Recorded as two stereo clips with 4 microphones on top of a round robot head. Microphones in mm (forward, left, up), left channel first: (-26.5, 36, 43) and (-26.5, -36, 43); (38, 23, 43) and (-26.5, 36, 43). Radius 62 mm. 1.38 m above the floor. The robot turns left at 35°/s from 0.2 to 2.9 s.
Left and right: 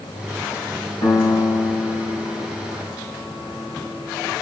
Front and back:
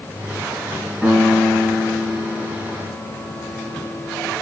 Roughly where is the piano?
Left.